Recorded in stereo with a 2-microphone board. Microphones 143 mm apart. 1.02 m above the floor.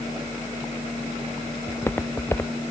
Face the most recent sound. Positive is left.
turn(degrees=15)  # may be behind; listen again after turning